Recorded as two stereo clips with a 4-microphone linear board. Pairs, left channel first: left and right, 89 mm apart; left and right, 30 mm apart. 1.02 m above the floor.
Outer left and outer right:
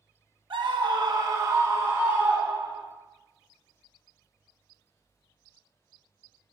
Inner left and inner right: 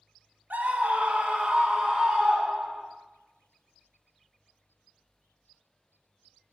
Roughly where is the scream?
Right.